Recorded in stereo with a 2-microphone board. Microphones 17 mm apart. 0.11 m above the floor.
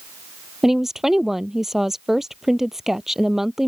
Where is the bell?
I don't hear a bell.